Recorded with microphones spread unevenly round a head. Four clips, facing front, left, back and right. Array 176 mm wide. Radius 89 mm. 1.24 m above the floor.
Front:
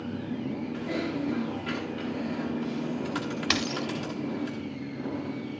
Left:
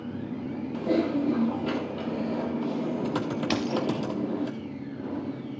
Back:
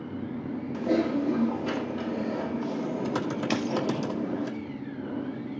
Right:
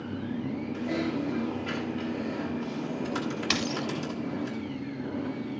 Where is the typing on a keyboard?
130° left, 1.3 m.